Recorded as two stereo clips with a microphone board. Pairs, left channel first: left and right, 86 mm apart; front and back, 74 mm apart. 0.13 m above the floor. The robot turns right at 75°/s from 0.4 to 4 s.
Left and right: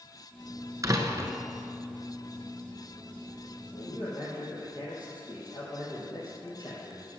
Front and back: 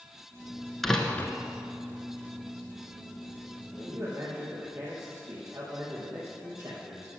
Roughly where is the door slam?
Right.